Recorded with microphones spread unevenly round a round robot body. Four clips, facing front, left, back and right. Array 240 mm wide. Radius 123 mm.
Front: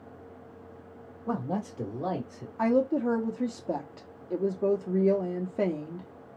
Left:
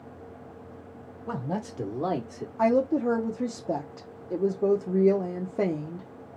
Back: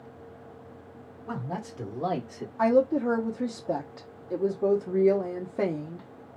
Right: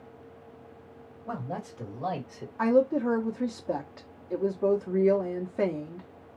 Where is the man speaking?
50° left, 1.8 m; by 2.5 s 130° left, 1.4 m.